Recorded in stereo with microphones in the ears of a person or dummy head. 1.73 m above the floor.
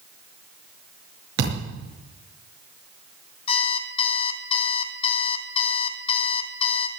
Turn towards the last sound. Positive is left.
turn(degrees=35)  # may be behind; listen again after turning